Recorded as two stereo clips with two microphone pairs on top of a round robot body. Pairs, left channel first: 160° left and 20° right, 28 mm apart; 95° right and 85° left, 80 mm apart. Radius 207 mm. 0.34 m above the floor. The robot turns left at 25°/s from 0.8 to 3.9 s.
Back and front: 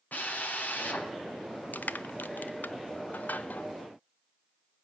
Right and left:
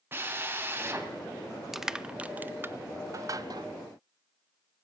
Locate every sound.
0.1 s a drill: 150° left, 3.5 m; by 1.1 s 145° left, 3.5 m
1.7 s crushing: 175° left, 0.5 m; by 3.7 s 125° left, 0.5 m